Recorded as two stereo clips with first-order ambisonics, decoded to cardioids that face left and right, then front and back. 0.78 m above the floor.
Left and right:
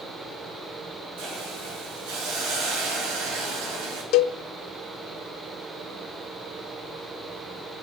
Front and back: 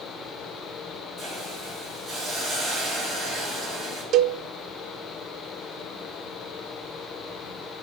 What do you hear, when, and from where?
1.2 s a hiss: 100° right, 10 m
4.1 s a cowbell: 130° left, 0.7 m